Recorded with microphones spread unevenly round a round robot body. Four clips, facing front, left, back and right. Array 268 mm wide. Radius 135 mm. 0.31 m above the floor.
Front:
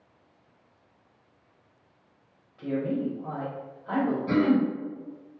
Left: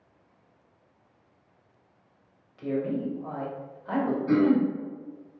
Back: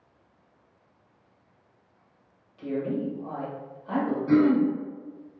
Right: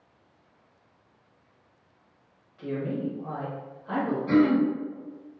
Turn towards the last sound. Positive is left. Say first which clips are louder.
# right 1 dB, back 4 dB
turn(degrees=-20)